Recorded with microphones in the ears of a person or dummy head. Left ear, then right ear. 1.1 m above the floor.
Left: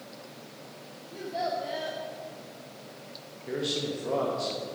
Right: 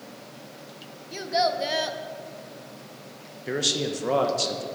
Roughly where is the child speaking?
Right.